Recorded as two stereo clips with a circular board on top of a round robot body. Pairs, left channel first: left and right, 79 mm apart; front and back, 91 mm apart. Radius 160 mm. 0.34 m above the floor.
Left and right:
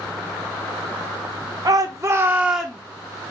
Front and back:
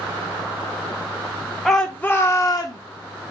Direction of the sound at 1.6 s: 85° right.